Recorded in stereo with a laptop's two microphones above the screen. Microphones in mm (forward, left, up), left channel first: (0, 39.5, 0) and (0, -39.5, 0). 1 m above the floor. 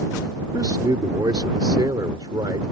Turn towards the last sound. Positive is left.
turn(degrees=-65)  # may be behind; listen again after turning